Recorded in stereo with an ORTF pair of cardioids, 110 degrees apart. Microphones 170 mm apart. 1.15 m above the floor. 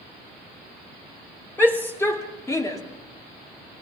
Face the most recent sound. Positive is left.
turn(degrees=20)